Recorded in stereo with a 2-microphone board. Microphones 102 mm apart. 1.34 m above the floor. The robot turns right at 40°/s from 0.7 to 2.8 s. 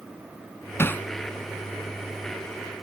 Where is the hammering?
25° left (ahead or behind); by 1.1 s 15° left (ahead or behind).